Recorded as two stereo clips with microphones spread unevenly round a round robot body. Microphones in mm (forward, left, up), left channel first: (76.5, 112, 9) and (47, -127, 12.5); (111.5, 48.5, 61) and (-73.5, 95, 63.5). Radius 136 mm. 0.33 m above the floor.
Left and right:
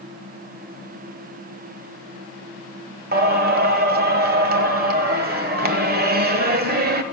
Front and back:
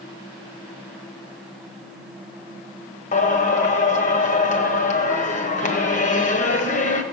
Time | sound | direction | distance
3.1 | singing | 55° right | 1.2 m